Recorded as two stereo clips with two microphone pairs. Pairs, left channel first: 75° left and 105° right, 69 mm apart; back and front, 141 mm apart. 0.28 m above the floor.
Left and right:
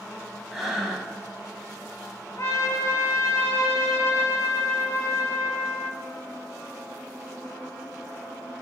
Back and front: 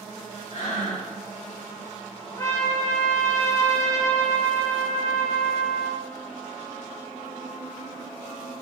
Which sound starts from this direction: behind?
Breathing, at 0.5 s.